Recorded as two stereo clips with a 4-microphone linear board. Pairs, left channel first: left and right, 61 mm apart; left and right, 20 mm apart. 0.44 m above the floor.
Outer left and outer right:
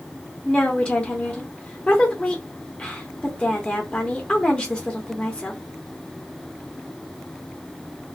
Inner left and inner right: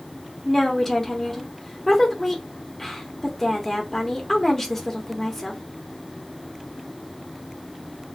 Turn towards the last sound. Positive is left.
turn(degrees=15)  # may be behind; listen again after turning